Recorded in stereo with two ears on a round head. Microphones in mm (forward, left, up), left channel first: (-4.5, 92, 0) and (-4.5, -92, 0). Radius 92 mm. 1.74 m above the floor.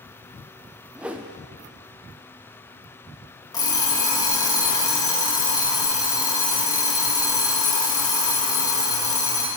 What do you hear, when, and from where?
0.9 s a whoosh: 5° right (ahead or behind), 0.5 m
3.5 s an alarm clock: 20° left (ahead or behind), 1.6 m